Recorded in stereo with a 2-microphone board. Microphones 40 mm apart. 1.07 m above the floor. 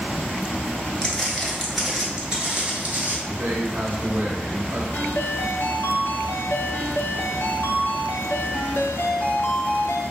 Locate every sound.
1.0 s footsteps: 20° left (ahead or behind), 1.0 m; by 3.2 s 40° right (ahead or behind), 1.3 m
3.3 s a man speaking: 55° right (ahead or behind), 1.0 m
4.9 s a ringtone: 70° left (ahead or behind), 0.7 m